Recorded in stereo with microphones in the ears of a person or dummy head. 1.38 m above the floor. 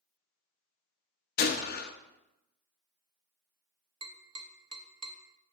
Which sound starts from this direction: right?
Tapping, at 4.0 s.